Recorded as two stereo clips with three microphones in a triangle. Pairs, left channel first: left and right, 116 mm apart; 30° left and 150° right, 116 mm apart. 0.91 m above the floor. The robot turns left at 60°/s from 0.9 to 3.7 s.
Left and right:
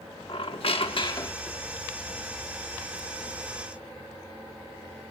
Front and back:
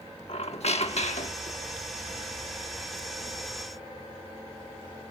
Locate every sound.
0.3 s a squeak: 55° left, 1.1 m; by 1.6 s 15° left, 1.1 m